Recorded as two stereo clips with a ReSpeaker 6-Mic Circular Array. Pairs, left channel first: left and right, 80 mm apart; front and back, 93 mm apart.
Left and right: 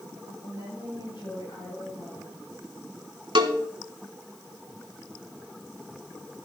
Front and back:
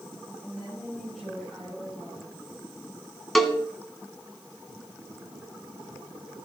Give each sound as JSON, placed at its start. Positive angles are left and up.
{"t": 0.4, "sound": "a woman speaking", "azimuth_deg": 85, "distance_m": 8.0}
{"t": 3.4, "sound": "a cowbell", "azimuth_deg": -90, "distance_m": 1.1}